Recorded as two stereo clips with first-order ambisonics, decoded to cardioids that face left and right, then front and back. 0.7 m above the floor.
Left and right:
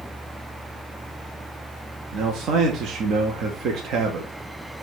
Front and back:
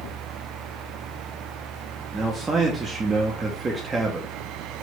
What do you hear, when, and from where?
2.1 s a man speaking: 115° right, 0.5 m